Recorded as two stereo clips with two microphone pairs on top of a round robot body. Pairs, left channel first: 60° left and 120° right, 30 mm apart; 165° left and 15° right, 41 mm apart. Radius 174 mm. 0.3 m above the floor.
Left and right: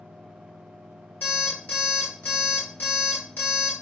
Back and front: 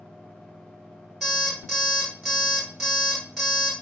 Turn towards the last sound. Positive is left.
turn(degrees=65)